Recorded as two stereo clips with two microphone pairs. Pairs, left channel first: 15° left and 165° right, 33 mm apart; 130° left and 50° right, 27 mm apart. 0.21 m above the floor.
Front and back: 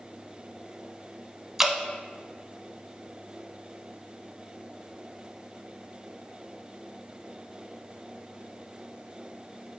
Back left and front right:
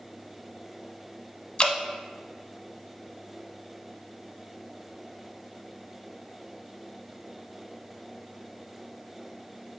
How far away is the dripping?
About 0.5 m.